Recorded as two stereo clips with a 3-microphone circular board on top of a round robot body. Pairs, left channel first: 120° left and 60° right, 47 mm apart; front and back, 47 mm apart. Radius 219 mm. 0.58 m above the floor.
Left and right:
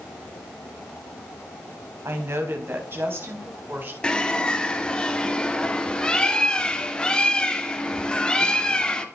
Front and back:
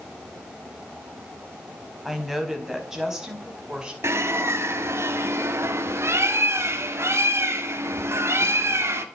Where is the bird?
170° right, 2.5 m.